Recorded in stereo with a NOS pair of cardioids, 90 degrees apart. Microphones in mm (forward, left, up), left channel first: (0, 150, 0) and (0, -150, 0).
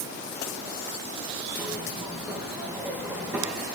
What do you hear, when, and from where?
1.6 s a zipper: 5° right, 2.0 m